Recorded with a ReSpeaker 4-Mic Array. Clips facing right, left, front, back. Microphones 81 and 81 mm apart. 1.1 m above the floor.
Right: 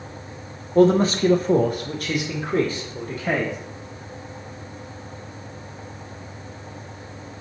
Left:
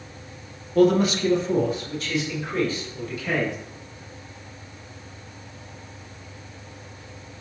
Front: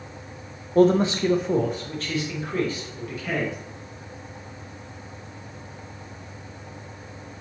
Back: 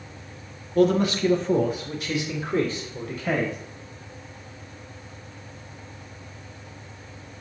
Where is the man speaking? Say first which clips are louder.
Right 2 dB, front 2 dB; 35° right, 1.0 m; by 3.6 s 130° right, 2 m.